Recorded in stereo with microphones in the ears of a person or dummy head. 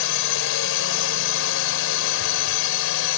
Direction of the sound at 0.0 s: 65° left (ahead or behind).